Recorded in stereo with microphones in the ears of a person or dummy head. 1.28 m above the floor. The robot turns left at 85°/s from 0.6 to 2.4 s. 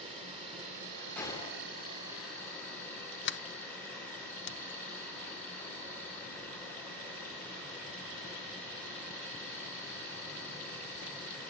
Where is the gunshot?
175° left, 2.5 m; by 2.2 s 85° left, 2.5 m.